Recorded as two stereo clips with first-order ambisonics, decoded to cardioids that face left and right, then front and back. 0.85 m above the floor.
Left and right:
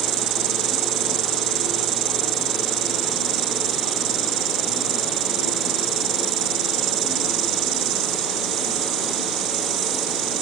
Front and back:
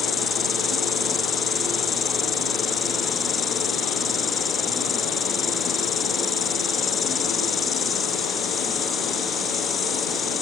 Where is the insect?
70° right.